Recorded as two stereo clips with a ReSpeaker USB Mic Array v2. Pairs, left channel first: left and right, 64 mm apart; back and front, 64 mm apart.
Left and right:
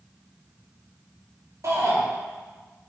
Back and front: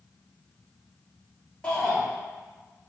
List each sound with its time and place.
1.6 s a shout: 100° right, 2.5 m